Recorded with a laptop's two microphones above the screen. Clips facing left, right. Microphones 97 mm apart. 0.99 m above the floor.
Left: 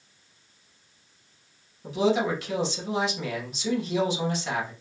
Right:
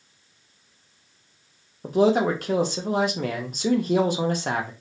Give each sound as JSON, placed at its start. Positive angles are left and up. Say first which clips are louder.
{"t": 1.8, "sound": "a man speaking", "louder": "right 4 dB", "side_deg": -50, "distance_m": 0.7}